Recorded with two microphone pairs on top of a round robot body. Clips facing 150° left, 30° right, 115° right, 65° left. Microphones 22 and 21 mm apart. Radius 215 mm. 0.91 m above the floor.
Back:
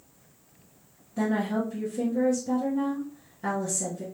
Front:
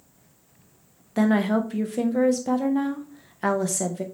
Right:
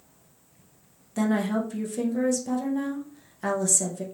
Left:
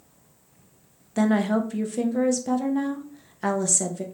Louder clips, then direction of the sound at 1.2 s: Front 6 dB, left 3 dB; 10° right.